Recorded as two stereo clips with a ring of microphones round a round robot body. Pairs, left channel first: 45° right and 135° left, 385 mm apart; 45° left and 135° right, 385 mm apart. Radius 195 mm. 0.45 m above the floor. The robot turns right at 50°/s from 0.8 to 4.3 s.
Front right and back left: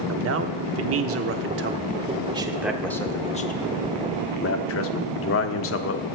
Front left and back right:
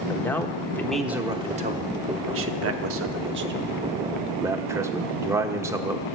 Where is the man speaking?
125° left, 0.8 m; by 6.0 s 60° right, 0.8 m.